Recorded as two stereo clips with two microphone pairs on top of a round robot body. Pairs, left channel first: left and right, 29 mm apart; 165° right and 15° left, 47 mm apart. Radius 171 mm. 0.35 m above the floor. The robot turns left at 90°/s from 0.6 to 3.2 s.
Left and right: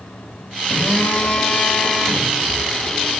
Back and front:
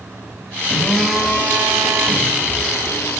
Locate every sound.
0.7 s a phone buzzing: 135° left, 5 m; by 3.2 s 90° right, 5 m